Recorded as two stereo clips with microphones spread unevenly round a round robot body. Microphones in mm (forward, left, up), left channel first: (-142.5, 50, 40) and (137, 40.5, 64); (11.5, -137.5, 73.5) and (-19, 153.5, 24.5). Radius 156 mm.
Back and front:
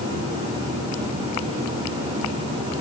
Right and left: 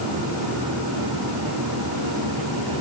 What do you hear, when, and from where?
Only background noise.